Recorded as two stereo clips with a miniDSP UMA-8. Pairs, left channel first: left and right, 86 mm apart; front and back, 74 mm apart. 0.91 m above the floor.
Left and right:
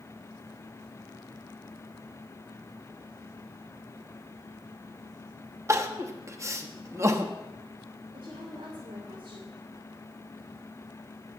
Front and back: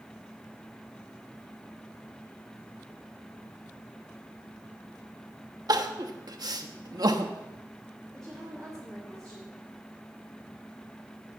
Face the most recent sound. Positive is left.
turn(degrees=-85)